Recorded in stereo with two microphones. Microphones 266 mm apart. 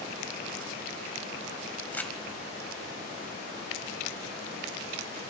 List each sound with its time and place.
1.9 s crumpling: 5° left (ahead or behind), 1.9 m